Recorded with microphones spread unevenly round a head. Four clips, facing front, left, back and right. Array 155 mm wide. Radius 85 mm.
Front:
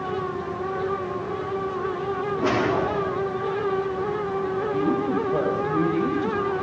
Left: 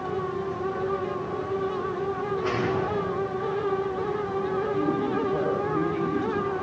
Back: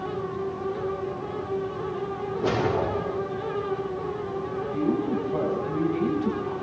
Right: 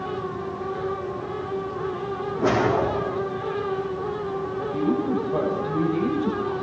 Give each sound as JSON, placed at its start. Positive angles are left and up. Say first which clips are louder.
{"t": 2.4, "sound": "a whoosh", "louder": "right 8 dB, front 1 dB", "azimuth_deg": -55, "distance_m": 4.5}
{"t": 4.7, "sound": "a woman speaking", "louder": "right 6 dB, even", "azimuth_deg": -30, "distance_m": 9.0}